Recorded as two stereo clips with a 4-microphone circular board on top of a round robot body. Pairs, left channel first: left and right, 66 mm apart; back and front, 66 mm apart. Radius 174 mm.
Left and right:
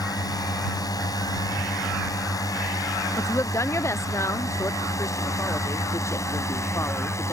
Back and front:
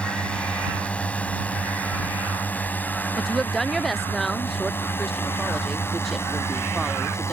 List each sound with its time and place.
0.0 s a drone: 105° left; by 7.3 s 135° left
3.2 s a woman speaking: 95° left